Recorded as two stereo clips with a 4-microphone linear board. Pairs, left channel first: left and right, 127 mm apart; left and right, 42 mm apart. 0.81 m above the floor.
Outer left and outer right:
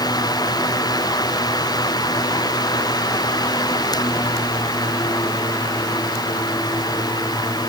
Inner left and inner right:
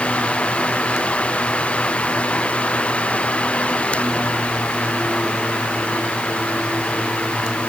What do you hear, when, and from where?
Only background noise.